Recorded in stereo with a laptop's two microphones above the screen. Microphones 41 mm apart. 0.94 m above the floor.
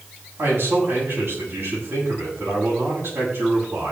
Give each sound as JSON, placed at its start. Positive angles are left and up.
{"t": 0.4, "sound": "a man speaking", "side_deg": -65, "distance_m": 7.5}